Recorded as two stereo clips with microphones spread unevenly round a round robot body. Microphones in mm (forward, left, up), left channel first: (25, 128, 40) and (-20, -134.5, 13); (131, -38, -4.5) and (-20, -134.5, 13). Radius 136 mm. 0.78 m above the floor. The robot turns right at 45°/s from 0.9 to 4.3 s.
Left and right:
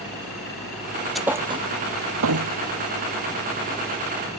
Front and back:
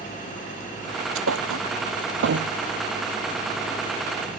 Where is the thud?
170° left; by 2.5 s 130° right.